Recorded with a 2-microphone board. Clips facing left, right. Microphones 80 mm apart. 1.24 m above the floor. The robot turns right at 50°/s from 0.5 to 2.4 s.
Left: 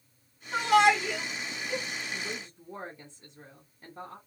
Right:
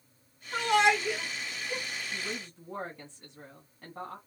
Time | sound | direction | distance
0.5 | a shout | 20° left (ahead or behind) | 2 m
2.1 | a woman speaking | 85° right | 1.5 m